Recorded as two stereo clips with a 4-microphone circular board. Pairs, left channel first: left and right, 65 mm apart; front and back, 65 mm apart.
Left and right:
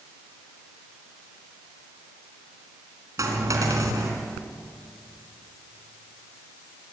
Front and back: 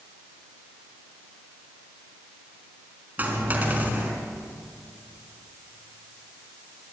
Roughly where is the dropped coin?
Behind right.